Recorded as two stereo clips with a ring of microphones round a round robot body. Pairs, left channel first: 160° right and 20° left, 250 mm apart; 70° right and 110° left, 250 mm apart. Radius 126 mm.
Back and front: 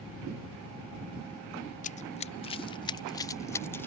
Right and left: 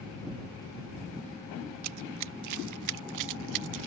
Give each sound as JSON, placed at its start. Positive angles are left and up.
{"t": 1.8, "sound": "running footsteps", "azimuth_deg": 140}